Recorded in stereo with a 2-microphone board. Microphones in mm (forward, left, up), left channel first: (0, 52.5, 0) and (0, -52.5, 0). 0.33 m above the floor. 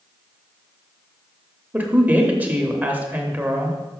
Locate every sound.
1.7 s a woman speaking: 15° right (ahead or behind), 1.0 m